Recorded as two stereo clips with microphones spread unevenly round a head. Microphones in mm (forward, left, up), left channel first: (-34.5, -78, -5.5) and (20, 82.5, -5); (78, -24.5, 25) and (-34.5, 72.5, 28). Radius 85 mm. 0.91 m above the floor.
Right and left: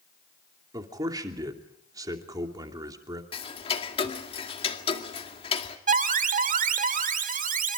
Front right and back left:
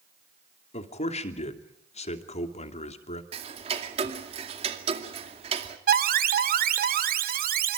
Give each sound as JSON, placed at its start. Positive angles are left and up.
{"t": 0.7, "sound": "a man speaking", "azimuth_deg": 0, "distance_m": 2.5}
{"t": 3.3, "sound": "ticking", "azimuth_deg": -165, "distance_m": 2.0}
{"t": 5.9, "sound": "an alarm", "azimuth_deg": 115, "distance_m": 1.8}